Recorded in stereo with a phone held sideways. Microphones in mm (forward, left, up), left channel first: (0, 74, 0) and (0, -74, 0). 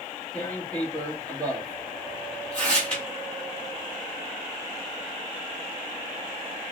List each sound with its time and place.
0.3 s tearing paper: 10° left (ahead or behind), 1.6 m